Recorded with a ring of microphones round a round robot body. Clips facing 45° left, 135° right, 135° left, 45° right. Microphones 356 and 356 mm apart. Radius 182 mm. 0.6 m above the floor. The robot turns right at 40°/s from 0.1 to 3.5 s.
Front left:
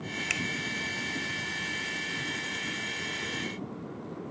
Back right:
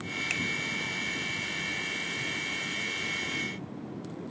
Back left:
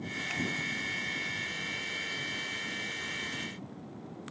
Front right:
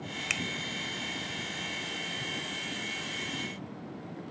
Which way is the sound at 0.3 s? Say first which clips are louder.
Even, back left 3 dB; 25° right.